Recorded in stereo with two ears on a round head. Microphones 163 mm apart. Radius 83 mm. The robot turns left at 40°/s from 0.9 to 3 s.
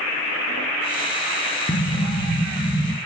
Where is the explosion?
30° left, 1.1 m; by 3.0 s 25° right, 1.1 m.